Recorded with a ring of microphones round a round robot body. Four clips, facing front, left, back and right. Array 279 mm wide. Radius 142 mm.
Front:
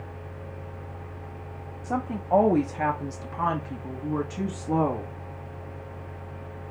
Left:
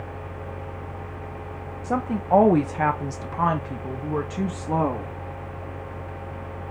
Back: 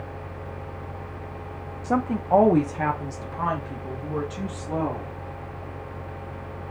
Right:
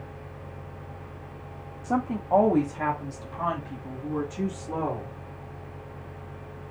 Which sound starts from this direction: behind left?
A woman speaking, at 1.8 s.